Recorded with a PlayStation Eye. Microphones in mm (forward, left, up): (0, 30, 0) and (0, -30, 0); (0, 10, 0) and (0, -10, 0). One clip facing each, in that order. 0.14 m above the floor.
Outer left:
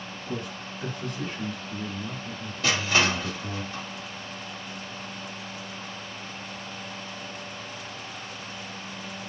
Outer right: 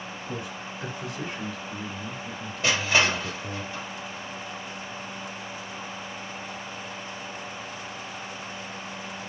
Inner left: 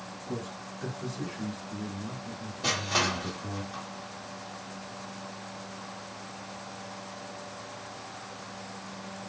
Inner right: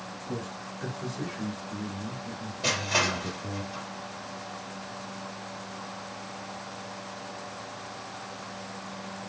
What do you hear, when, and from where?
0.3 s a man speaking: 20° right (ahead or behind), 1.7 m; by 3.6 s 20° left (ahead or behind), 2.0 m
2.6 s crushing: 25° right (ahead or behind), 1.8 m